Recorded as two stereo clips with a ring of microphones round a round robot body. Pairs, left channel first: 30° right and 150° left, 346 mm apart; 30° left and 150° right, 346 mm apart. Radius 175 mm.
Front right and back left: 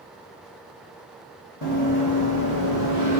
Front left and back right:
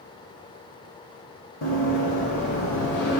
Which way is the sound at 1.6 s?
Straight ahead.